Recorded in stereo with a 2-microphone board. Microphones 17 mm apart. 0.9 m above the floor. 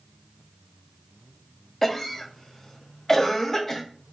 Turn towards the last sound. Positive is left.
turn(degrees=20)  # may be behind; listen again after turning